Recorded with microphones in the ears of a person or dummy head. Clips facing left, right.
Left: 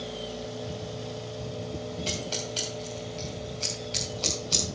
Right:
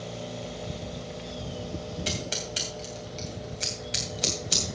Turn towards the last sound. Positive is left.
turn(degrees=-25)  # may be behind; listen again after turning